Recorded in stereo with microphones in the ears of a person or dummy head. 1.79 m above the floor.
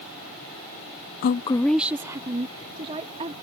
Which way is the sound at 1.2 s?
55° left (ahead or behind).